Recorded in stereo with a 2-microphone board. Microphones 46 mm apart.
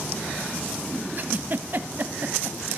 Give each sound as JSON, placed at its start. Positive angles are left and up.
{"t": 1.2, "sound": "a giggle", "side_deg": -45, "distance_m": 0.6}